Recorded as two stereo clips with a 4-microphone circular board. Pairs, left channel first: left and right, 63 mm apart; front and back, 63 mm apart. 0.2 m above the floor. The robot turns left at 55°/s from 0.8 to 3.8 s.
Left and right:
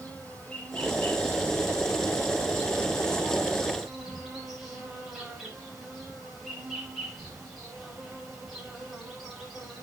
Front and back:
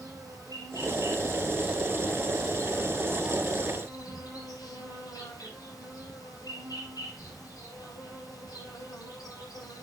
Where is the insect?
160° left, 9 m; by 9.8 s 5° right, 9 m.